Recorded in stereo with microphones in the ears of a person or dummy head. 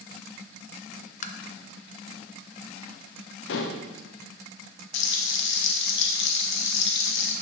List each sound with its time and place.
1.2 s tapping: 40° left (ahead or behind), 0.5 m
3.5 s dishes clattering: 70° left (ahead or behind), 0.7 m
4.9 s frying: 70° left (ahead or behind), 1.0 m